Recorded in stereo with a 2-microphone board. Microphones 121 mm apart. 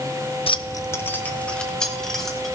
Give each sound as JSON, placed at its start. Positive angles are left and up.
{"t": 0.5, "sound": "keys jangling", "side_deg": 50, "distance_m": 0.5}